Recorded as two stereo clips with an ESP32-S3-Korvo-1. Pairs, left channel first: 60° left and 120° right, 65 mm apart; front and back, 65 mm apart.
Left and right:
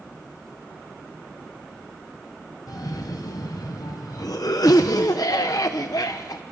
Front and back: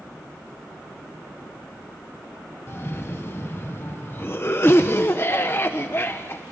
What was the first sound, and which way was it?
A cough, 50° left.